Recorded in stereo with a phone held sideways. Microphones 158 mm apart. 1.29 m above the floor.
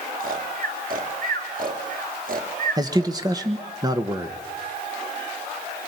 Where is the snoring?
60° right (ahead or behind), 2.5 m.